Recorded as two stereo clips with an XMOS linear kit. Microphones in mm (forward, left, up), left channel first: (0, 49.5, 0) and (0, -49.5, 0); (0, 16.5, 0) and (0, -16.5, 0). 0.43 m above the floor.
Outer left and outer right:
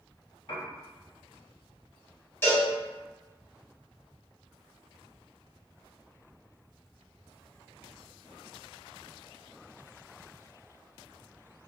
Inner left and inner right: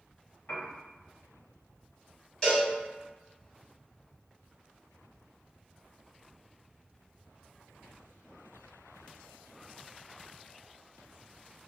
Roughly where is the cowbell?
Left.